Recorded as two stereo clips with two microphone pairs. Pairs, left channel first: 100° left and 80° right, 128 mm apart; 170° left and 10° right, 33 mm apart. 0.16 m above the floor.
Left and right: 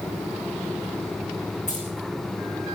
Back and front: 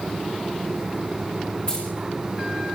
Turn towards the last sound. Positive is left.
turn(degrees=120)